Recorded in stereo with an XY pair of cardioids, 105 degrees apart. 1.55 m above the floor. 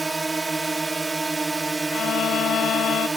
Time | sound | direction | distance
0.0 | a drone | 20° right | ?
1.9 | a violin | 65° left | ?